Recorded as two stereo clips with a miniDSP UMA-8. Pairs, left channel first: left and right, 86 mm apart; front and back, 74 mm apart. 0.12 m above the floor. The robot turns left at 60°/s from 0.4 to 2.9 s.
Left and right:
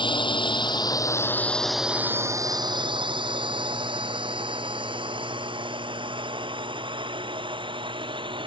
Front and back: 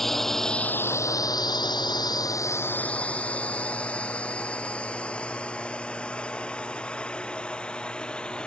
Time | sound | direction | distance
0.0 | a drone | 85° left | ?